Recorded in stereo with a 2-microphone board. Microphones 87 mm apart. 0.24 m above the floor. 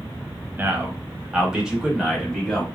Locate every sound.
0.6 s a man speaking: 20° right (ahead or behind), 1.2 m; by 2.6 s 5° left (ahead or behind), 1.4 m